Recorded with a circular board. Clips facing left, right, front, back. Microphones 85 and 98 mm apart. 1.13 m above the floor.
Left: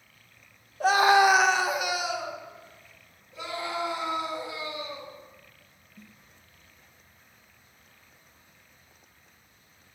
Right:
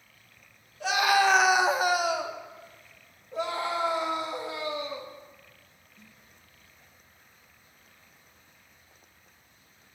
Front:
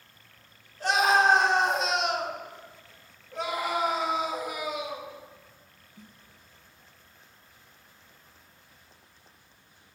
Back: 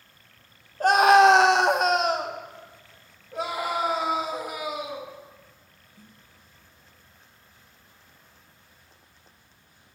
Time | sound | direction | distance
0.8 | a scream | 135° left | 1.0 m
3.3 | a scream | 100° right | 1.6 m
6.0 | a snare drum | 60° left | 1.0 m